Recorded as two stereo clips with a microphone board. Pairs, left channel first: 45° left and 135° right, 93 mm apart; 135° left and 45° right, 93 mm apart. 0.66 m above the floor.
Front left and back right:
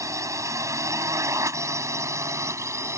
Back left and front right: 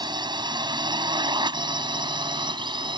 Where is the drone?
80° right; by 3.0 s 75° right.